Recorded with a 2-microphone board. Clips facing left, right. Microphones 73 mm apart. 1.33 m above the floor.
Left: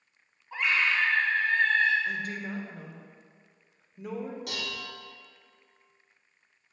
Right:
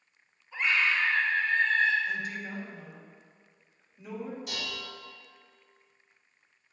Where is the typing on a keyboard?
I don't hear typing on a keyboard.